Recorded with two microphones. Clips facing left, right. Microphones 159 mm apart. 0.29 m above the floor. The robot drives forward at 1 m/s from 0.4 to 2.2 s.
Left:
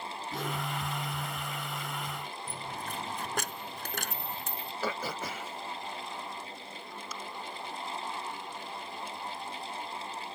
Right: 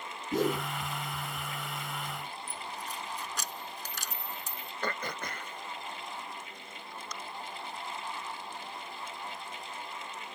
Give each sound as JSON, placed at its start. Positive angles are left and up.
{"t": 0.3, "sound": "a whoosh", "side_deg": -45}
{"t": 2.5, "sound": "a dropped coin", "side_deg": 60}
{"t": 4.8, "sound": "throat clearing", "side_deg": 5}